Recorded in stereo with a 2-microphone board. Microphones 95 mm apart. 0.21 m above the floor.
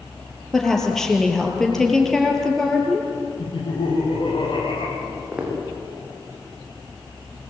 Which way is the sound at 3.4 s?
55° left (ahead or behind).